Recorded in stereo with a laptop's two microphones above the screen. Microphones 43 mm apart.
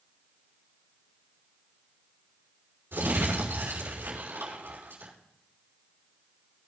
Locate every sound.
2.9 s crumpling: 65° right (ahead or behind), 5.5 m